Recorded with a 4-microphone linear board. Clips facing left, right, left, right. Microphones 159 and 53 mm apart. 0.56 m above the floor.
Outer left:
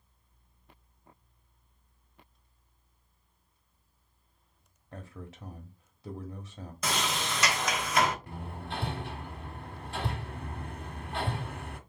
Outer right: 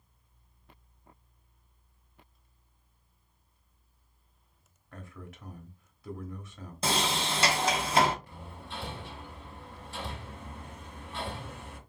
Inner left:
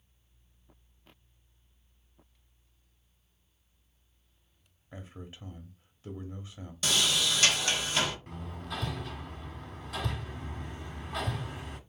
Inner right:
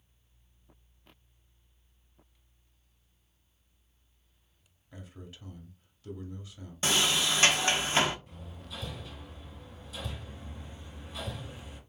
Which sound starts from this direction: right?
A sliding door, at 6.8 s.